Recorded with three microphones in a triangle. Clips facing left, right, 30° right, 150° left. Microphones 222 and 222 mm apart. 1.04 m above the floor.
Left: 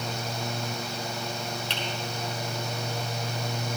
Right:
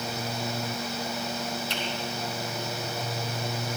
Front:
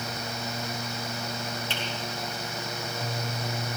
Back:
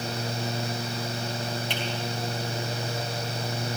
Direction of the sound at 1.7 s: 75° left.